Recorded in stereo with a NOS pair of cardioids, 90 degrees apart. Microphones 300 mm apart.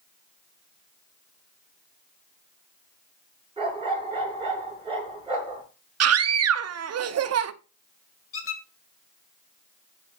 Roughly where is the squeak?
Ahead left.